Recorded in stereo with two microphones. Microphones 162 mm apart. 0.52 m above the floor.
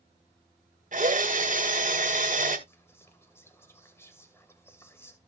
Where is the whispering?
15° left (ahead or behind), 2.5 m.